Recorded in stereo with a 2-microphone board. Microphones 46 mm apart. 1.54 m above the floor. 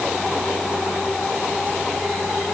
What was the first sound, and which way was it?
Only background noise.